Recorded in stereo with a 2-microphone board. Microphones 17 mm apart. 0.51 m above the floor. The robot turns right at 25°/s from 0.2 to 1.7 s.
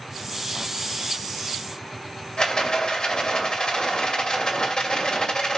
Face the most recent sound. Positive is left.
turn(degrees=60)  # may be behind; listen again after turning